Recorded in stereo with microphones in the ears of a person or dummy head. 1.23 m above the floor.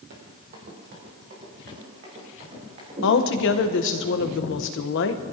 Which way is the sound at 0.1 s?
40° right (ahead or behind).